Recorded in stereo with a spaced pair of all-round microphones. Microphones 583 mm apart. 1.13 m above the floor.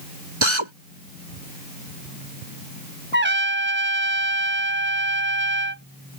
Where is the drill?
50° right (ahead or behind).